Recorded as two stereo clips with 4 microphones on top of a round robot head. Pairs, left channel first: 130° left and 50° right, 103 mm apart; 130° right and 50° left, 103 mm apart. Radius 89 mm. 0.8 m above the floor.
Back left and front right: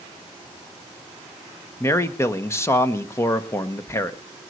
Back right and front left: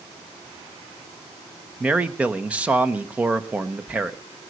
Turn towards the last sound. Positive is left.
turn(degrees=110)